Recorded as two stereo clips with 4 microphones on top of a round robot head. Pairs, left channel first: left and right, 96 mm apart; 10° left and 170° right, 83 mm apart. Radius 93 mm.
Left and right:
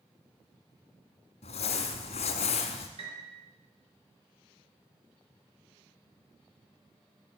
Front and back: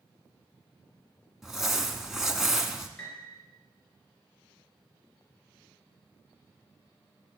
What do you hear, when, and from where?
1.4 s crumpling: 105° left, 1.5 m
3.0 s a piano: 70° right, 4 m